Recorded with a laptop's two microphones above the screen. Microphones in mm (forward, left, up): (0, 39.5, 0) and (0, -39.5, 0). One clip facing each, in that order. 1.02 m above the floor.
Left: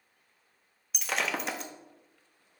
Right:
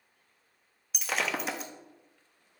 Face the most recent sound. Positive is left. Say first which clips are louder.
# even
turn(degrees=0)  # may be behind; listen again after turning